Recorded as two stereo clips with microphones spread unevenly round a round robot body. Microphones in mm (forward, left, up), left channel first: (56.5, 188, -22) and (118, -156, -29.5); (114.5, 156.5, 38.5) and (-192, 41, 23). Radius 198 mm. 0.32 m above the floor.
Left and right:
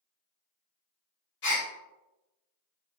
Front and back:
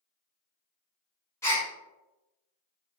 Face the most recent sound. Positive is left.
turn(degrees=100)